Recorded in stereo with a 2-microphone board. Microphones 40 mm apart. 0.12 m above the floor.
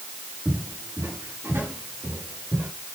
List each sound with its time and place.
0.5 s footsteps: 80° right, 6 m; by 2.7 s 75° right (ahead or behind), 7 m